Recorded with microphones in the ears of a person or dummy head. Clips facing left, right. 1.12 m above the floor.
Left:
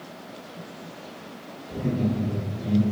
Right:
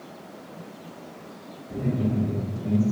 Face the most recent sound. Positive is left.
turn(degrees=-35)  # may be behind; listen again after turning